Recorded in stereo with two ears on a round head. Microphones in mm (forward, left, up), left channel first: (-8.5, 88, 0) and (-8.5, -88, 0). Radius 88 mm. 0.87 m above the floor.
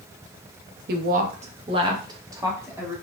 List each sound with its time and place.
0.9 s a woman speaking: 55° right (ahead or behind), 0.6 m; by 3.0 s 10° right (ahead or behind), 1.5 m